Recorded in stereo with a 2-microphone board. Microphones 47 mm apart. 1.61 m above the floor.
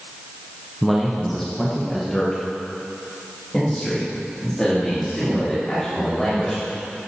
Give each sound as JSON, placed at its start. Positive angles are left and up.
{"t": 0.8, "sound": "a man speaking", "side_deg": -5, "distance_m": 1.2}